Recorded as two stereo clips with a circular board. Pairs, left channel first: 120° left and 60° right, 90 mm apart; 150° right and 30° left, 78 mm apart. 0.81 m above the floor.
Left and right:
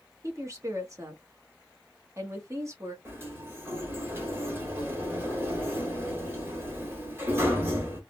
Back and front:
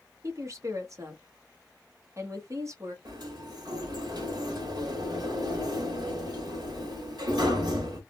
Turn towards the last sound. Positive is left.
turn(degrees=0)